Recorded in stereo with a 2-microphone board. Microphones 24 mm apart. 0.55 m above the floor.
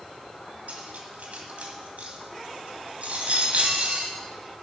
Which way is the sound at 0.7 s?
80° right.